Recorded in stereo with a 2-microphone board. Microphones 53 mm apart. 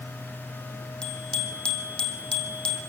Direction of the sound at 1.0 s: 20° left (ahead or behind).